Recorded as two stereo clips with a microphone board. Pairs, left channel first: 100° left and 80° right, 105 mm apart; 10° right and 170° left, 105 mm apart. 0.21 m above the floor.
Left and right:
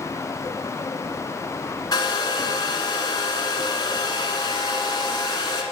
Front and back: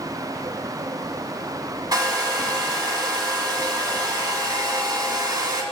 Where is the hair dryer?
130° left, 0.7 m.